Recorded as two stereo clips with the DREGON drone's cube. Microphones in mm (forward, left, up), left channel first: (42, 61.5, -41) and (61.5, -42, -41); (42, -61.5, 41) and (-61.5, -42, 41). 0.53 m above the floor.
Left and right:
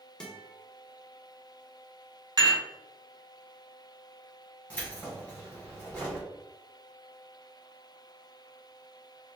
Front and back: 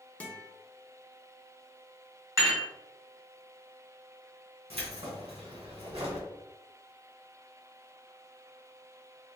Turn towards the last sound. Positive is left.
turn(degrees=180)